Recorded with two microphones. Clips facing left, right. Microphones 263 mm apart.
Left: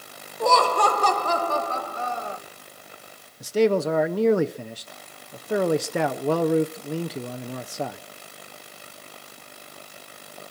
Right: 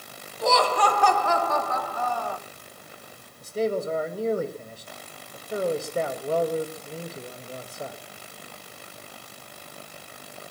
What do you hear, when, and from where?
0.4 s laughter: 55° left (ahead or behind), 1.8 m; by 2.4 s 20° left (ahead or behind), 2.0 m
3.4 s a man speaking: 85° left, 1.1 m